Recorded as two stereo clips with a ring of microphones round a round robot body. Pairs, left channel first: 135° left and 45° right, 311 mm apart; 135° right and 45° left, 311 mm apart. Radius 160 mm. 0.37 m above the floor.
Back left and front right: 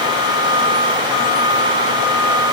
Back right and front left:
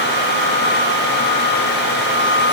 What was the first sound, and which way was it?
Only background noise.